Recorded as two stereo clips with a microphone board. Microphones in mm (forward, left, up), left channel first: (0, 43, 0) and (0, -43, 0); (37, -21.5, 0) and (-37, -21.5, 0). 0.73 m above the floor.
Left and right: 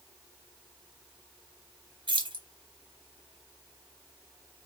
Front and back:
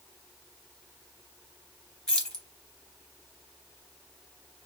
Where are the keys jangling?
80° right, 0.9 m.